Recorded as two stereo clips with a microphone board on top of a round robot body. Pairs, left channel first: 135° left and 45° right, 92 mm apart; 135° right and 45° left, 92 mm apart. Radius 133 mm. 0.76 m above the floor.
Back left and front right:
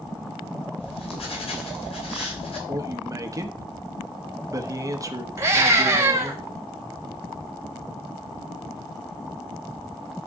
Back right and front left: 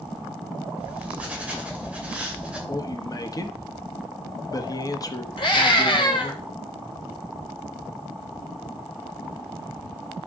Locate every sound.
0.8 s writing: 120° left, 3 m
2.7 s a man speaking: 95° right, 1.3 m
5.4 s a scream: 105° right, 2.5 m